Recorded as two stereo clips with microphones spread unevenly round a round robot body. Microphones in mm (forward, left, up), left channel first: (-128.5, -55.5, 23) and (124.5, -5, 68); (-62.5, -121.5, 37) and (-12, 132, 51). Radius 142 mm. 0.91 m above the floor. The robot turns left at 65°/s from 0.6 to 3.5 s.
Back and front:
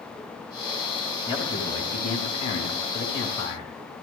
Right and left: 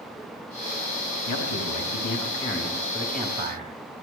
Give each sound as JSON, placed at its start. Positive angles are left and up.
{"t": 1.3, "sound": "a man speaking", "azimuth_deg": -95, "distance_m": 4.0}